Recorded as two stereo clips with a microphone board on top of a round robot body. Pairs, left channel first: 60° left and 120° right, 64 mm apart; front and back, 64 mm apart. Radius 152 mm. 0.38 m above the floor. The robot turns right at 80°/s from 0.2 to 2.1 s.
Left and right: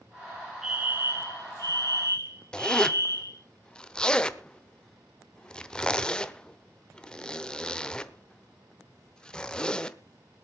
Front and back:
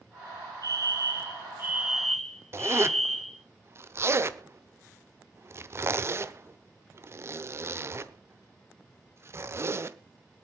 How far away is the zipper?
About 1.1 m.